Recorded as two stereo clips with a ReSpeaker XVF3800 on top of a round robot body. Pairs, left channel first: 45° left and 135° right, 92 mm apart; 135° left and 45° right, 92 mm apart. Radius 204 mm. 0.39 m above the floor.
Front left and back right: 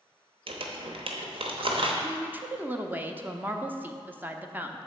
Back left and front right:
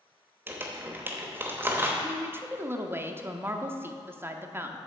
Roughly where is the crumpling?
Behind right.